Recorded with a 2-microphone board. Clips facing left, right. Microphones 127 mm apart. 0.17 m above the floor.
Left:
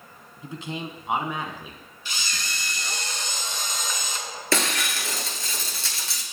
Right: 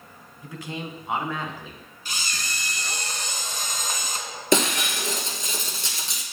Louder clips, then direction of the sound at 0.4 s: Left 1 dB; 25° left (ahead or behind).